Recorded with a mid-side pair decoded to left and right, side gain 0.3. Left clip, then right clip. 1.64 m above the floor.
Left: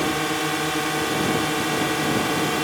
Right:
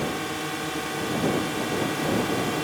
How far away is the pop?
I don't hear a pop.